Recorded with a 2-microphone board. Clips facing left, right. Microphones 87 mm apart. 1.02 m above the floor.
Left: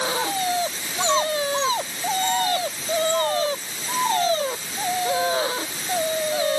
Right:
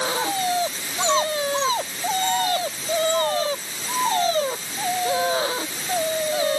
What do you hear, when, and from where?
Only background noise.